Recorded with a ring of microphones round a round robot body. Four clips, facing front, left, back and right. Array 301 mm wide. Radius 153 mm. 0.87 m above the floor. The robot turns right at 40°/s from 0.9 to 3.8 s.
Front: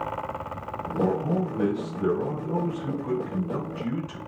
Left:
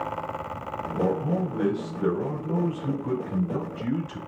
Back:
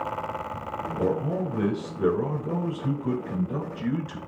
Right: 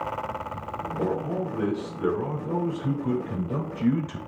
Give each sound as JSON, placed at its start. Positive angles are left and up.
{"t": 1.0, "sound": "a man speaking", "azimuth_deg": 145, "distance_m": 3.5}